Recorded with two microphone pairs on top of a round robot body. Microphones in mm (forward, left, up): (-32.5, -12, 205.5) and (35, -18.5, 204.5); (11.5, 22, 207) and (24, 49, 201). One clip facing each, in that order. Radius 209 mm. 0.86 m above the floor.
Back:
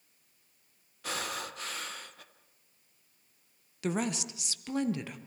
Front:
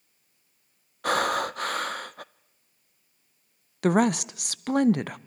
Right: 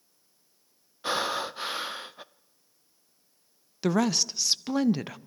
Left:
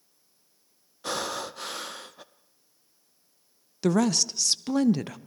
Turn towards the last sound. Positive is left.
turn(degrees=-30)